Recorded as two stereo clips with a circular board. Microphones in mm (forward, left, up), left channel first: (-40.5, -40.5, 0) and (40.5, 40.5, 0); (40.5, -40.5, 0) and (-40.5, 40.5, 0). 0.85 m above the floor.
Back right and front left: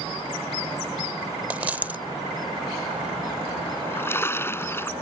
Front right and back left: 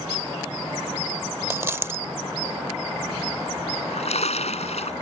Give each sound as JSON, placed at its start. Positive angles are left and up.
{"t": 1.5, "sound": "a dropped coin", "azimuth_deg": 100}
{"t": 3.7, "sound": "a splash", "azimuth_deg": -65}